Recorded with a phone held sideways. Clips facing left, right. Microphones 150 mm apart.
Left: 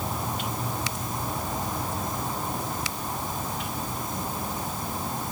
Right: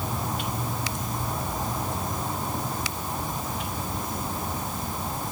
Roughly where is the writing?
No writing in this recording.